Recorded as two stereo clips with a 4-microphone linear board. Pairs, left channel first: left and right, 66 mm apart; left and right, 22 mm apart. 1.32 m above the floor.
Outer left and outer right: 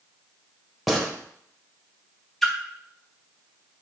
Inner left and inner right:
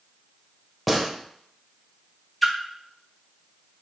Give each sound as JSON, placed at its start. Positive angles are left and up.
{"t": 0.9, "sound": "a gunshot", "side_deg": 0, "distance_m": 1.2}
{"t": 2.4, "sound": "a splash", "side_deg": 5, "distance_m": 1.4}